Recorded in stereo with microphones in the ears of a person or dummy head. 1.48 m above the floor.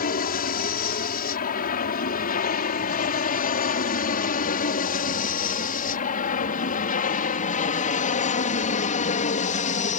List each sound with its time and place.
0.0 s an aircraft: 45° left (ahead or behind); by 10.0 s 35° left (ahead or behind)